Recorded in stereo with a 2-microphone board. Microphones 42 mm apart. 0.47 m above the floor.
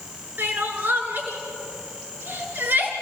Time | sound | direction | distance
0.4 | crying | 55° right (ahead or behind) | 3 m